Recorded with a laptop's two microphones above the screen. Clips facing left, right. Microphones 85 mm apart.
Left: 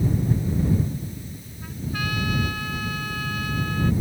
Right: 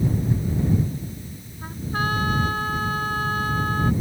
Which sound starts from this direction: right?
A trumpet, at 1.6 s.